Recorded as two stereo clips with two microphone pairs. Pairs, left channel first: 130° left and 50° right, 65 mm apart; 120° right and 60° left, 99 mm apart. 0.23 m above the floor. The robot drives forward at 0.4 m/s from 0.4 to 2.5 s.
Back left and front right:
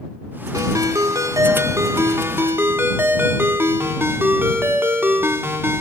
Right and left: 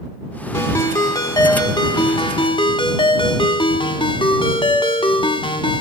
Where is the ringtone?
60° right, 1.3 m; by 5.8 s 105° right, 1.2 m.